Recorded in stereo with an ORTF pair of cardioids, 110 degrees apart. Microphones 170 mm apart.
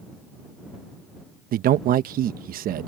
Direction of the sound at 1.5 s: 60° right.